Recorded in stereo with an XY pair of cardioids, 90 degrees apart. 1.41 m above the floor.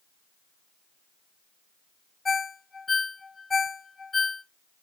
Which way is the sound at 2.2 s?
30° left.